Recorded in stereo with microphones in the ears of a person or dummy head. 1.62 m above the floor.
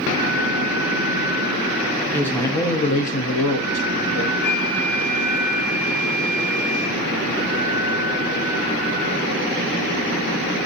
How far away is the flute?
About 2.5 m.